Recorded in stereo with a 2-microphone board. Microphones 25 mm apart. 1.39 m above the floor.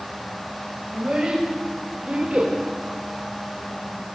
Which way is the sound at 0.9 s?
35° right (ahead or behind).